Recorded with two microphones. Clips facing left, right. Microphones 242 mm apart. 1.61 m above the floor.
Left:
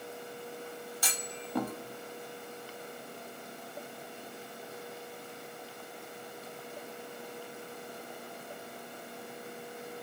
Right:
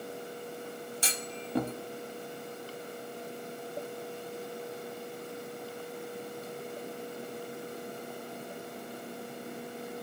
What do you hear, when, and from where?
1.0 s a clunk: 25° right (ahead or behind), 0.8 m